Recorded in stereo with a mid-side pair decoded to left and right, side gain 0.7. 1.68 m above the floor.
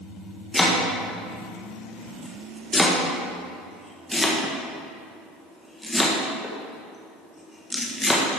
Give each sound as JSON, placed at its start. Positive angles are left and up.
{"t": 0.5, "sound": "chopping", "azimuth_deg": 10, "distance_m": 1.6}